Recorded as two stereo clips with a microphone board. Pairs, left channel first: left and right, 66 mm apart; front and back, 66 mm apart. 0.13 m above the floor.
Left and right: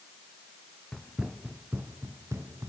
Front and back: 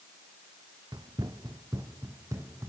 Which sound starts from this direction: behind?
Running footsteps, at 0.9 s.